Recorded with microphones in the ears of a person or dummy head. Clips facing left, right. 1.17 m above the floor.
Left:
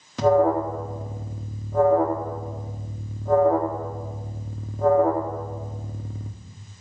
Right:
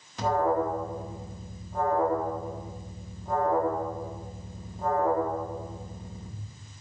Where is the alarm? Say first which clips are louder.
Left 7 dB; 65° left (ahead or behind), 1.4 m.